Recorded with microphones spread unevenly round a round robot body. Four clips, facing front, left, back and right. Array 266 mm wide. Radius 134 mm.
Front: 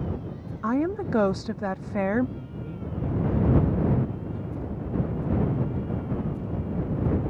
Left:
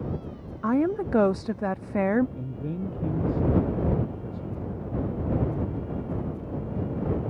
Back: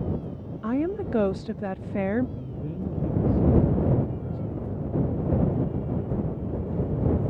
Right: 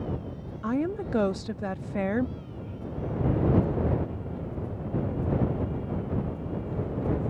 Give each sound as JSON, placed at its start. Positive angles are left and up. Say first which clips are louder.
{"t": 0.6, "sound": "a woman speaking", "louder": "left 4 dB, front 1 dB", "azimuth_deg": 70}
{"t": 2.4, "sound": "a man speaking", "louder": "left 7 dB, back 3 dB", "azimuth_deg": 120}